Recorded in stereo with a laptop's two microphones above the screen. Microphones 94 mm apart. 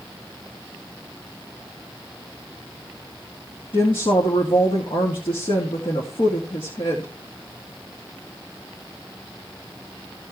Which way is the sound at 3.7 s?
65° left (ahead or behind).